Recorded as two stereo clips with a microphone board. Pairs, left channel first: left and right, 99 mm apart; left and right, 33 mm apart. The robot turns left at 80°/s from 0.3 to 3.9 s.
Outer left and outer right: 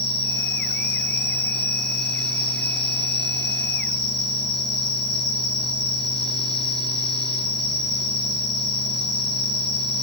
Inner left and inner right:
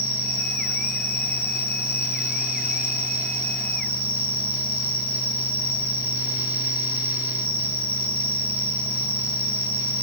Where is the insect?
25° left, 1.0 m; by 10.0 s 95° left, 1.0 m.